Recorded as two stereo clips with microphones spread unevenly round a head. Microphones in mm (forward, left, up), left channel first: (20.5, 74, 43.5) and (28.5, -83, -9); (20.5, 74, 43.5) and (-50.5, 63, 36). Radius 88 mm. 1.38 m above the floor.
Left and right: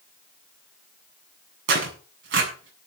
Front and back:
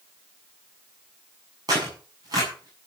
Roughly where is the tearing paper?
Right.